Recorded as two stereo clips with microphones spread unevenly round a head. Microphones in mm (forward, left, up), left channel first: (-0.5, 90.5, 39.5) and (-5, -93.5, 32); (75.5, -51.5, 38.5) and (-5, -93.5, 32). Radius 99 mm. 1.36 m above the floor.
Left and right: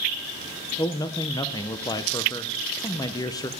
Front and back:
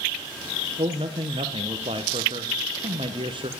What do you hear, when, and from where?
0.8 s a man speaking: 160° left, 0.8 m